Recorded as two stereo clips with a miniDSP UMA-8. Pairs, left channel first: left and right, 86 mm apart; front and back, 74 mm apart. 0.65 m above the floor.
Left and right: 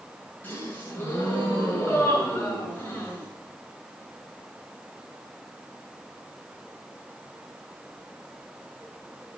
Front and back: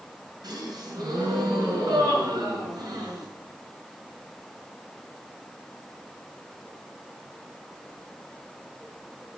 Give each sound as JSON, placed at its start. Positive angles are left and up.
{"t": 0.4, "sound": "a gasp", "azimuth_deg": 155, "distance_m": 5.5}